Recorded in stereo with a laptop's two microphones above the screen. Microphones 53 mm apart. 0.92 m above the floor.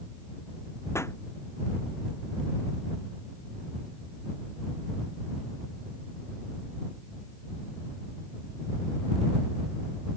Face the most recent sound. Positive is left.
turn(degrees=60)  # may be behind; listen again after turning